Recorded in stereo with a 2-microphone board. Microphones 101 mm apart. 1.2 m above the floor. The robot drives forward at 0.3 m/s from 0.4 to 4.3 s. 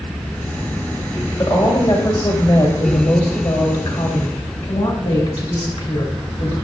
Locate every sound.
1.4 s a woman speaking: 55° left (ahead or behind), 3 m; by 6.5 s 70° left (ahead or behind), 2.5 m